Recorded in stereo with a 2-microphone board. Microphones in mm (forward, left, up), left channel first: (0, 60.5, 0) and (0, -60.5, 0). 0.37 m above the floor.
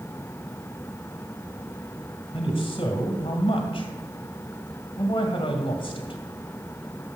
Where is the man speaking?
45° left (ahead or behind), 1.9 m.